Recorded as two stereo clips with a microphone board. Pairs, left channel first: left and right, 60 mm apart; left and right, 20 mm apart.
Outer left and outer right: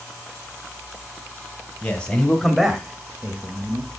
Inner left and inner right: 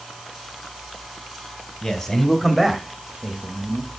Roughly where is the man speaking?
Left.